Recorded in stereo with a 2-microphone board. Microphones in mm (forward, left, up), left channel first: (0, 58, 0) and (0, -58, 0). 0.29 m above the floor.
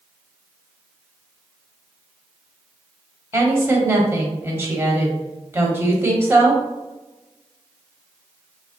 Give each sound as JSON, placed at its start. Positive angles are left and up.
{"t": 3.3, "sound": "a woman speaking", "side_deg": -20, "distance_m": 1.1}